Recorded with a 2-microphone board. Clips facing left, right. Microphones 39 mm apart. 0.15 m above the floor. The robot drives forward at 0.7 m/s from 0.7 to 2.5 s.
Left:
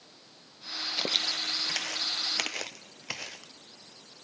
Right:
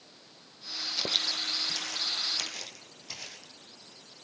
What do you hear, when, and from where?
1.0 s footsteps: 25° left (ahead or behind), 1.6 m; by 3.5 s 75° left (ahead or behind), 3 m